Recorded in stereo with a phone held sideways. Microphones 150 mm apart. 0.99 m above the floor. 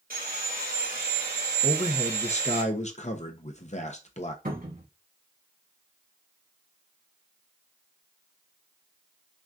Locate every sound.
0.1 s sawing: 75° right (ahead or behind), 2.5 m
1.6 s a man speaking: 50° left (ahead or behind), 0.8 m
4.5 s a cupboard door: 80° right, 2 m